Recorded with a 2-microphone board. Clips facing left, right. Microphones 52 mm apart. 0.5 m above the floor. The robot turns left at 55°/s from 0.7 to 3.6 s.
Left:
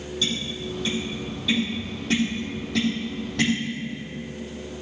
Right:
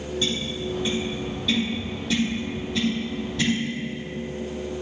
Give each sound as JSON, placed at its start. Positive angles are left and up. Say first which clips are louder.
{"t": 0.2, "sound": "tapping", "louder": "even", "side_deg": -35, "distance_m": 4.0}